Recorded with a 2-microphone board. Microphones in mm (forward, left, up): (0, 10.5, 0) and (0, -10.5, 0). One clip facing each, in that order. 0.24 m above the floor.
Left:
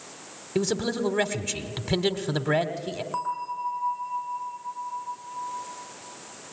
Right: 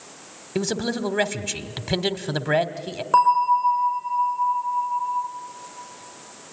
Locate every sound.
0.6 s a man speaking: 15° right (ahead or behind), 1.1 m
3.1 s a bell: 70° right (ahead or behind), 4 m